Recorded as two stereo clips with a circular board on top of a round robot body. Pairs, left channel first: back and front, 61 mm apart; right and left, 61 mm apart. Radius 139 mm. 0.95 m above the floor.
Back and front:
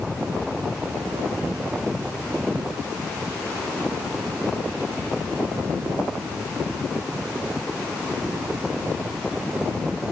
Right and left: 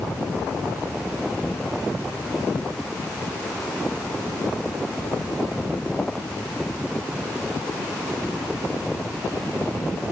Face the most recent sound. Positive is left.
No sound to turn to.